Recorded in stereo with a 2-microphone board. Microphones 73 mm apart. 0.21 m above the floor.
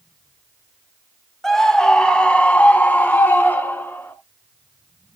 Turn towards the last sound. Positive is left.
turn(degrees=30)  # may be behind; listen again after turning